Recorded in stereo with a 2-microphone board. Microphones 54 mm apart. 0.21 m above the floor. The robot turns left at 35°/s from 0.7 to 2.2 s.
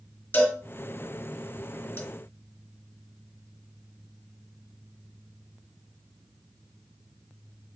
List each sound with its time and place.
0.3 s a cowbell: 35° left (ahead or behind), 2 m; by 2.0 s 40° left (ahead or behind), 2 m